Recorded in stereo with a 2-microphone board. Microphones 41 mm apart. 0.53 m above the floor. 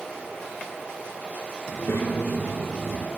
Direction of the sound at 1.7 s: 80° left.